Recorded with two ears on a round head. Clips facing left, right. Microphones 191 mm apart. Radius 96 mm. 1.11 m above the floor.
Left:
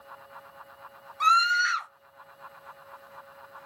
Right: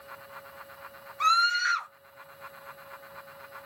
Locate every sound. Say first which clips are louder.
1.2 s a scream: left 2 dB; 5° left (ahead or behind), 1.0 m